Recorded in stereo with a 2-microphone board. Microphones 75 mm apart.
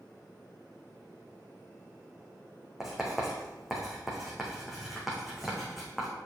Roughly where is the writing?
Centre.